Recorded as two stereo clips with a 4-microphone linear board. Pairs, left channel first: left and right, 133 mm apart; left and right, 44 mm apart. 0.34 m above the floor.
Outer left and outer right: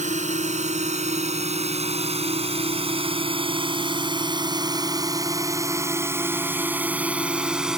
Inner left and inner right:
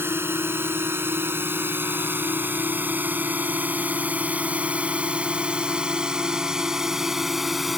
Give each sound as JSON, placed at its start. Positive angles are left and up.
{"t": 0.0, "sound": "a drone", "side_deg": -65}